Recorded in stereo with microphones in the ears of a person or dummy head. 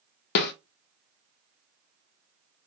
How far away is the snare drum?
About 0.5 m.